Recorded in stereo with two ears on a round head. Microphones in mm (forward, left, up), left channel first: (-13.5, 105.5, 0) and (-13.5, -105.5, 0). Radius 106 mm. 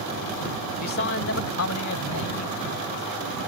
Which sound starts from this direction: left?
A man speaking, at 0.8 s.